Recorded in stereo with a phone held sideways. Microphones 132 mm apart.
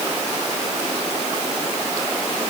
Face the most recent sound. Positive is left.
No sound to turn to.